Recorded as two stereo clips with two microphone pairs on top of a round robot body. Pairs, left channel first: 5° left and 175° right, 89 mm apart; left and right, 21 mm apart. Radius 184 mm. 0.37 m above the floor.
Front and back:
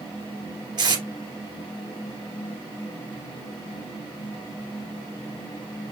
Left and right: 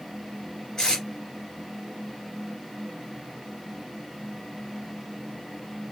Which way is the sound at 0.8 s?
145° left.